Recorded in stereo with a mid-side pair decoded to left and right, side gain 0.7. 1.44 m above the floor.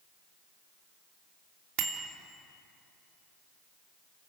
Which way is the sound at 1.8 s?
60° right.